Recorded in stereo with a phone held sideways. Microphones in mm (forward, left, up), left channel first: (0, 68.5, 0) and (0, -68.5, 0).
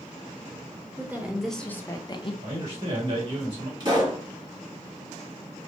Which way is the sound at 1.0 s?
15° right (ahead or behind).